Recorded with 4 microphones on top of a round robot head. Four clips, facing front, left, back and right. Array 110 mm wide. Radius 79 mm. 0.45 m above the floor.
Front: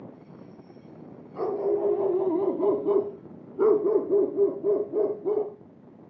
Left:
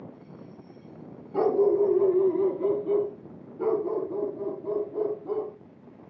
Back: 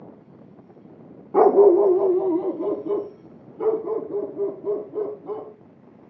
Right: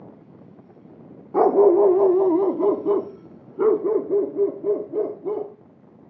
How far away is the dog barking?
About 0.7 m.